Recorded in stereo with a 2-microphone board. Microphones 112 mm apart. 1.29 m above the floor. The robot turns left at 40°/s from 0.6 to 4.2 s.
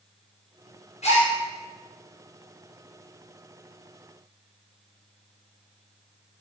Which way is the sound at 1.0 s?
85° left.